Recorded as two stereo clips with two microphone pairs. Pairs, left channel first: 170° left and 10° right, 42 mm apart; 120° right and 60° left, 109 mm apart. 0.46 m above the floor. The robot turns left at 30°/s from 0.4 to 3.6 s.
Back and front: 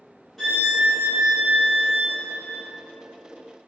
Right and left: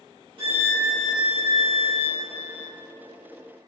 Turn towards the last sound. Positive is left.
turn(degrees=-5)